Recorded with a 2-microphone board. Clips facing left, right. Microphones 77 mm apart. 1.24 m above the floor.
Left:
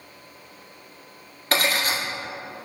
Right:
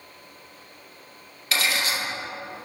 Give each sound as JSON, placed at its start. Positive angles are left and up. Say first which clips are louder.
{"t": 1.5, "sound": "cutlery clinking", "louder": "left 3 dB", "side_deg": 45, "distance_m": 1.5}